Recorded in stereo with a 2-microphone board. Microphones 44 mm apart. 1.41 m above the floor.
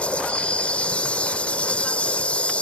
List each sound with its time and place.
0.0 s an insect: 25° left (ahead or behind)